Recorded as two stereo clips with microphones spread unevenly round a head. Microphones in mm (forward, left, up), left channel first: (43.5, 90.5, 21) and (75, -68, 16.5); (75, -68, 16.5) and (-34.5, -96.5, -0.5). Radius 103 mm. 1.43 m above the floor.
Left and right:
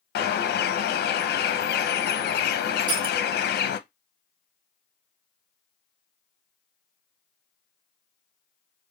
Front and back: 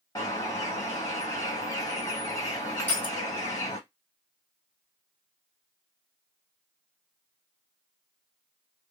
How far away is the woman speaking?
I don't hear a woman speaking.